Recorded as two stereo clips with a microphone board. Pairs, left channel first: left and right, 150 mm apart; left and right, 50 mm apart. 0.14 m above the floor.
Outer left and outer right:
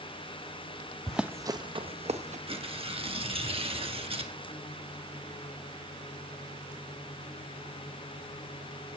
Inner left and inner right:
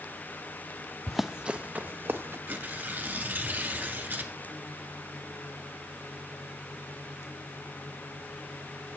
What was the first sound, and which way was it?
Running footsteps, 5° left (ahead or behind).